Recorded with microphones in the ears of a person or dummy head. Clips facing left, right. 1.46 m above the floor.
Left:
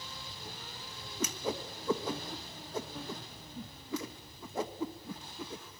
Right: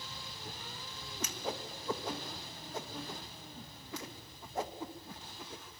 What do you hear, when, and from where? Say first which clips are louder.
1.2 s a whoosh: left 4 dB; 70° left (ahead or behind), 1.2 m